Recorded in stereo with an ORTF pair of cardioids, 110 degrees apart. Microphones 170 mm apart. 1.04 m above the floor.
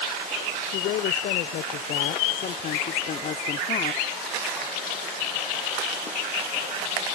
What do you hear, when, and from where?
0.7 s a woman speaking: 70° left; by 4.0 s 45° left